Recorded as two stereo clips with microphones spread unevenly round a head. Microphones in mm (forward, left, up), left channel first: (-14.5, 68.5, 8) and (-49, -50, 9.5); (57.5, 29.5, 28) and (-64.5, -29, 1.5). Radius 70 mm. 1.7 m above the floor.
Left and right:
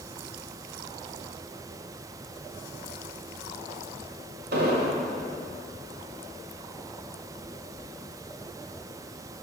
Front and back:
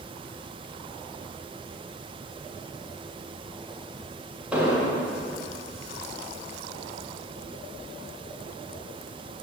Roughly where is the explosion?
Right.